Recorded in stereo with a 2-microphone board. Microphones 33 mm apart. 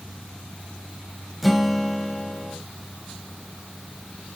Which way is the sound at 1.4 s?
Centre (ahead or behind).